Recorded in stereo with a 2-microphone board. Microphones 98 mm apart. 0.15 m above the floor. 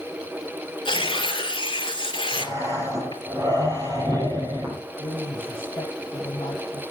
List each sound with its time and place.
0.8 s tearing paper: 55° left (ahead or behind), 2 m
2.3 s breathing: 40° right (ahead or behind), 4.5 m
5.0 s a woman speaking: 55° left (ahead or behind), 5.5 m